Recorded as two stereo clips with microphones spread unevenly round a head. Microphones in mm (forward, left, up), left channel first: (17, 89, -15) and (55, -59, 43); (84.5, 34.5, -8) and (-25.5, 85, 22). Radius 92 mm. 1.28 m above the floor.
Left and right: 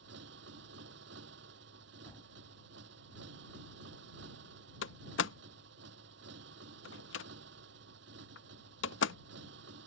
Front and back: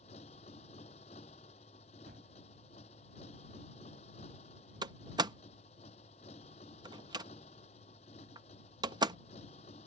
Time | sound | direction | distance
0.0 | a motorcycle | 80° right | ?
2.1 | a gunshot | 175° right | ?
4.8 | a door slam | 125° left | ?